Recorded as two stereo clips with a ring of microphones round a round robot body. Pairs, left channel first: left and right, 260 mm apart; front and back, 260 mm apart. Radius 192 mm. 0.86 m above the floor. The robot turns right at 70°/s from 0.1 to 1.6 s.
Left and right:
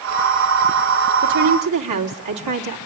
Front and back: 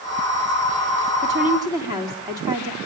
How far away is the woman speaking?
About 2.0 m.